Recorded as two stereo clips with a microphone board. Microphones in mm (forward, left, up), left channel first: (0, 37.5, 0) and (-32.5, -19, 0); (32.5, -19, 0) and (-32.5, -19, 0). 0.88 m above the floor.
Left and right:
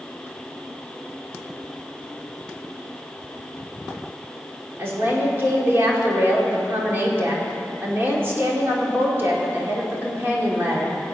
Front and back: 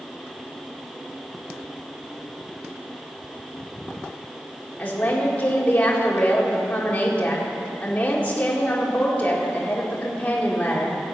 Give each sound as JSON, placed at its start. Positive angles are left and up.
{"t": 4.8, "sound": "a woman speaking", "azimuth_deg": -65, "distance_m": 2.0}